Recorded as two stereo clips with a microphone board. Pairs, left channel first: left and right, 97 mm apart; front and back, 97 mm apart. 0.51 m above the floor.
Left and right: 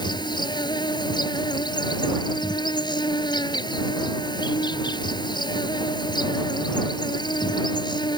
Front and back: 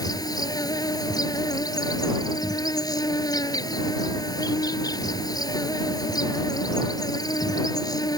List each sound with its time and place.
0.0 s an insect: 50° left